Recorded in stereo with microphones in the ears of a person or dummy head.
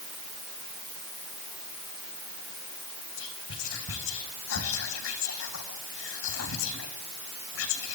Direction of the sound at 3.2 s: 80° left.